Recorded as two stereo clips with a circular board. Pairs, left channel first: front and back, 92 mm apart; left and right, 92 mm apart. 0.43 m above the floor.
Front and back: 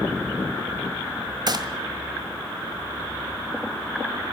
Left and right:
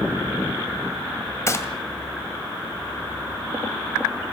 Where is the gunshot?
145° left, 1.8 m.